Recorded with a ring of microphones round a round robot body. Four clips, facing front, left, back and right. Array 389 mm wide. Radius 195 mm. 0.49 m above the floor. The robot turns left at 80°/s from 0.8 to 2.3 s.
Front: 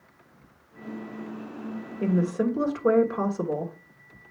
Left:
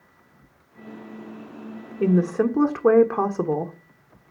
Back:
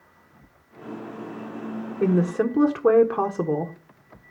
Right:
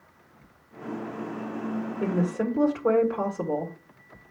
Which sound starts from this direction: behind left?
A woman speaking, at 2.0 s.